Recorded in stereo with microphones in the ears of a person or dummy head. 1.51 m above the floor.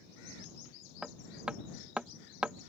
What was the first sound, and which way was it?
Hammering, 5° right (ahead or behind).